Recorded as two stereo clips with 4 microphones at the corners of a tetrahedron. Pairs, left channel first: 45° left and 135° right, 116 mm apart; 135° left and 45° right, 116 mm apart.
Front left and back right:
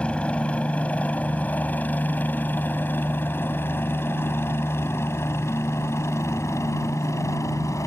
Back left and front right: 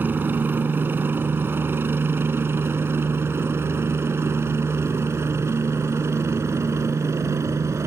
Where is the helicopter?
15° right; by 7.9 s 5° left.